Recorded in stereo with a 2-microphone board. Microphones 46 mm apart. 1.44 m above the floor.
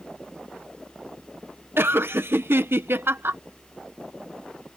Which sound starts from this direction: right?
Laughter, at 1.8 s.